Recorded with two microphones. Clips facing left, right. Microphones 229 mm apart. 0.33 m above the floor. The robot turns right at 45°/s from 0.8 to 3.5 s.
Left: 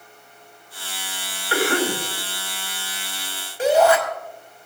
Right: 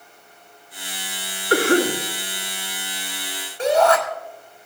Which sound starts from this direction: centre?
A shout, at 3.6 s.